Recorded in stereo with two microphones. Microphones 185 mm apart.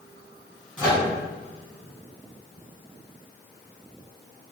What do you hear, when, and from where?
0.8 s a microwave: 10° right (ahead or behind), 1.8 m